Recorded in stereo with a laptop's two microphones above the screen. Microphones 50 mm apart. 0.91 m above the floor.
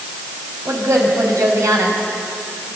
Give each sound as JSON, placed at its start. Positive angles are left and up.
{"t": 0.7, "sound": "a woman speaking", "side_deg": -85, "distance_m": 6.5}